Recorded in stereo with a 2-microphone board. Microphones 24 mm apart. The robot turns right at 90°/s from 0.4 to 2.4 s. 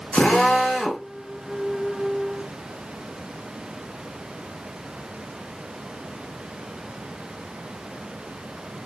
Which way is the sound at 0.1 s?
130° left.